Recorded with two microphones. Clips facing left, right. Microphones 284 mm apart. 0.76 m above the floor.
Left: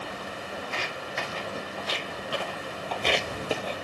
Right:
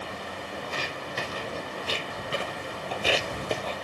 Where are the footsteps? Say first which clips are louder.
Right 1 dB; 40° right (ahead or behind), 1.5 m; by 3.8 s 15° left (ahead or behind), 0.8 m.